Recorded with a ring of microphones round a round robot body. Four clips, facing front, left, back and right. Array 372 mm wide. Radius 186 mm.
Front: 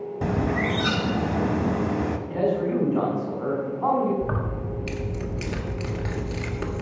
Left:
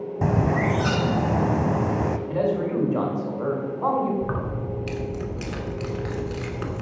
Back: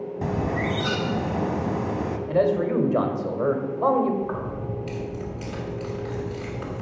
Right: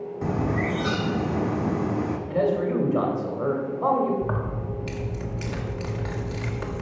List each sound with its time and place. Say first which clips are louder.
0.2 s a bird: left 4 dB, front 2 dB; 75° left, 0.8 m
2.3 s a man speaking: right 3 dB, back 4 dB; straight behind, 3 m
4.2 s keys jangling: left 1 dB, even; 30° left, 1.5 m